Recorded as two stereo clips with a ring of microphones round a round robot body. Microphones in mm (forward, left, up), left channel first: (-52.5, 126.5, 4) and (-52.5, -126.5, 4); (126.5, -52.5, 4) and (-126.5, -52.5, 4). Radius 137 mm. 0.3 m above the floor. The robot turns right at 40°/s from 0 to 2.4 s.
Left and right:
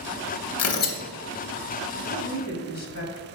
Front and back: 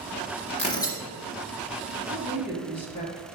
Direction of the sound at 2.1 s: 50° left.